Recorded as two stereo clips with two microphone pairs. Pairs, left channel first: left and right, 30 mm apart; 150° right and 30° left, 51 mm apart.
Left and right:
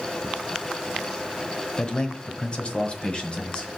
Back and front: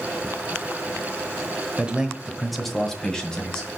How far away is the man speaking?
About 1.1 m.